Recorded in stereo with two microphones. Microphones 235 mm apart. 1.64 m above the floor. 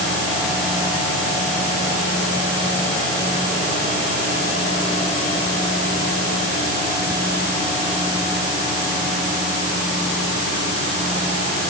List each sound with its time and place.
Only background noise.